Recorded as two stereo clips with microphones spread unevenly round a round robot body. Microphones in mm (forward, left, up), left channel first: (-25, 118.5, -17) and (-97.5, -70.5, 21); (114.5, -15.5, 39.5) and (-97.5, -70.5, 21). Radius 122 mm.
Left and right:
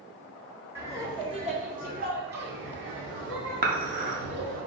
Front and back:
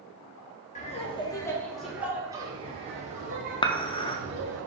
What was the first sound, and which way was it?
Laughter, 20° right.